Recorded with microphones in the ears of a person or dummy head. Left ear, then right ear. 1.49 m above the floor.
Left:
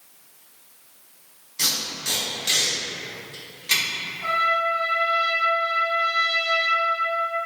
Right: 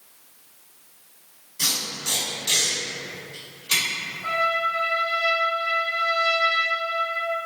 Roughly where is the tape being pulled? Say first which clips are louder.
Left 1 dB; left.